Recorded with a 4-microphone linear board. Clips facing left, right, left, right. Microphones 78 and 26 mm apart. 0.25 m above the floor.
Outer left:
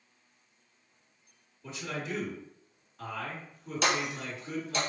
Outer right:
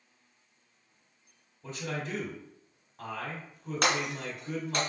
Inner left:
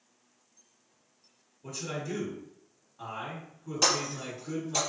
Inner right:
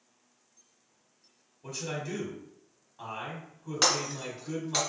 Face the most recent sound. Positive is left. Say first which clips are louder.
# even, even
turn(degrees=-55)  # may be behind; listen again after turning